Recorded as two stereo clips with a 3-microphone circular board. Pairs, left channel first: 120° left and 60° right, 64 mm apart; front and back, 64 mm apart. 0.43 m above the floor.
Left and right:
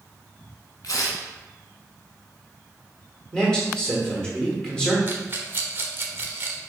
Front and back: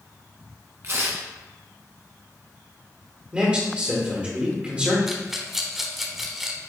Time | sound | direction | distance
0.8 | tearing paper | 135° left | 0.9 m
3.3 | a man speaking | 165° left | 1.3 m
5.1 | a rattle | 95° right | 0.7 m